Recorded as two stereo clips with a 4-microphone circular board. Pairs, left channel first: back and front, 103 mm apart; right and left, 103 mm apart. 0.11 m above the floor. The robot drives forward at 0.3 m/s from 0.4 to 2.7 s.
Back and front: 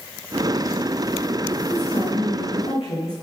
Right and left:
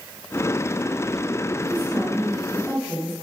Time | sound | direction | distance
1.7 | a woman speaking | 175° right | 9 m